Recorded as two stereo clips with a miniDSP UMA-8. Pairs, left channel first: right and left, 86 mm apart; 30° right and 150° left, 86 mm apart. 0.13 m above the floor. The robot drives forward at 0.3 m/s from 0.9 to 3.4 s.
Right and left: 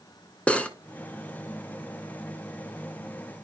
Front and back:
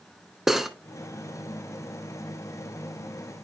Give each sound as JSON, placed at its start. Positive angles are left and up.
{"t": 0.5, "sound": "cutlery clinking", "azimuth_deg": -135, "distance_m": 0.7}